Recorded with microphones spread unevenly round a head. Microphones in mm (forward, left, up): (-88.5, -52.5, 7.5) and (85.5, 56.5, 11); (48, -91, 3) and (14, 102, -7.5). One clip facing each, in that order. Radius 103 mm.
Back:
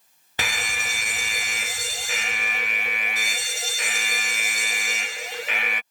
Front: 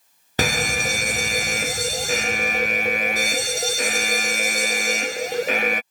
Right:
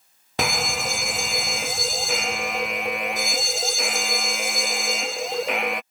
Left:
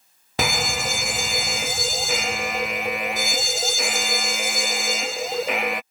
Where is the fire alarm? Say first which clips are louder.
Front 11 dB, left 1 dB; 15° left.